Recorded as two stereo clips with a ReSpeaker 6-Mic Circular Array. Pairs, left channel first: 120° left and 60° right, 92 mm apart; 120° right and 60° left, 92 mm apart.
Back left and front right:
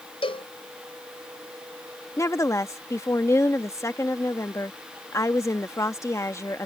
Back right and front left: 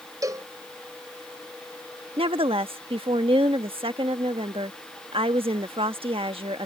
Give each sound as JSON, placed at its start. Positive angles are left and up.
{"t": 0.2, "sound": "a cowbell", "azimuth_deg": 110}
{"t": 2.2, "sound": "a woman speaking", "azimuth_deg": 60}